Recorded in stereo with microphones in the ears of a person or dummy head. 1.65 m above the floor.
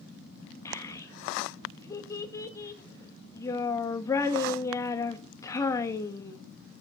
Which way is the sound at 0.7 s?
20° left (ahead or behind).